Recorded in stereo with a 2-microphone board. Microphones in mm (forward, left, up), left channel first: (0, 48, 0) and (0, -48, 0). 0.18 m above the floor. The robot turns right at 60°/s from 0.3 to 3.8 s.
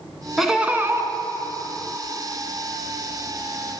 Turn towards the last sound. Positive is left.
turn(degrees=30)